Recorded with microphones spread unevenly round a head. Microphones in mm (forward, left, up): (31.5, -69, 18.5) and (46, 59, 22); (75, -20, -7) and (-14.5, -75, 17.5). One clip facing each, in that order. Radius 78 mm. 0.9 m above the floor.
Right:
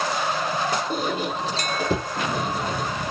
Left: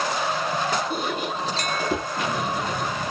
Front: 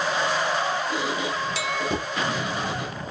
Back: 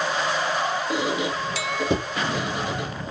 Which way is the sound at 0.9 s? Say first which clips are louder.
Right 2 dB, back 2 dB; 140° right.